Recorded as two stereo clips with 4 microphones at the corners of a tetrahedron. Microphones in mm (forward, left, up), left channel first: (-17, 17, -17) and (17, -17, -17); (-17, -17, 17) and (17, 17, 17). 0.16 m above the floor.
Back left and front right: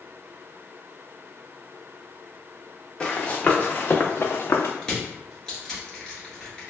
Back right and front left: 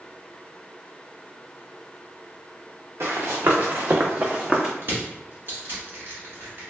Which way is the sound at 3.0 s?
60° left.